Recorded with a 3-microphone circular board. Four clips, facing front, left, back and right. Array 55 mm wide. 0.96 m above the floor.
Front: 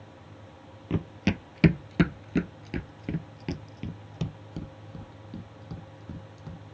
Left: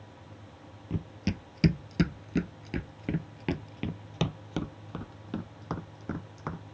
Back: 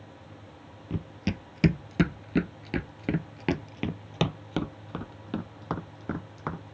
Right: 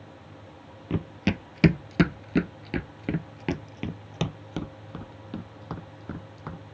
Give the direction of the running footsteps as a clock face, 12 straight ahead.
2 o'clock.